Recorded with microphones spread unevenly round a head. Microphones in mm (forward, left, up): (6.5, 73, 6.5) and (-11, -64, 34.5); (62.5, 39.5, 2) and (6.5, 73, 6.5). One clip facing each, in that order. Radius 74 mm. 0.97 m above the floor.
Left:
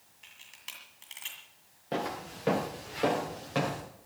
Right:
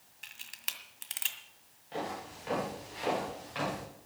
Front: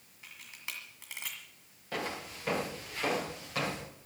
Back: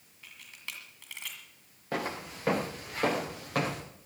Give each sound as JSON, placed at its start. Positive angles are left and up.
{"t": 0.2, "sound": "a camera shutter", "azimuth_deg": -115, "distance_m": 1.8}
{"t": 1.9, "sound": "footsteps", "azimuth_deg": 105, "distance_m": 5.5}